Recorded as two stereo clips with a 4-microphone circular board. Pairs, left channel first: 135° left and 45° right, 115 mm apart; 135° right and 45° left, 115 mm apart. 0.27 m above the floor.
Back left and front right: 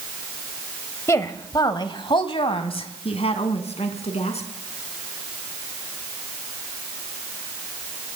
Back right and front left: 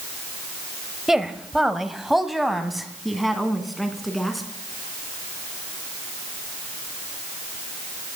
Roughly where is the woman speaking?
Behind left.